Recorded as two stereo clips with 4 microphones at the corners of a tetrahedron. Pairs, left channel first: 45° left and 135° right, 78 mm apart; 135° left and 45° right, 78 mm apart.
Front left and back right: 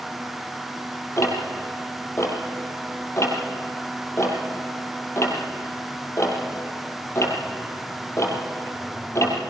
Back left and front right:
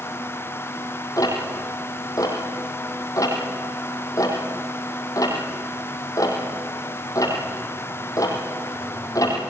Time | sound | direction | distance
1.2 | ticking | 95° left | 4 m